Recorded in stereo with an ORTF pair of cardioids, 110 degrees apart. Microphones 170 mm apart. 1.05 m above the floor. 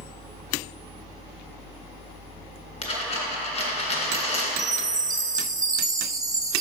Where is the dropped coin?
40° left, 2.5 m.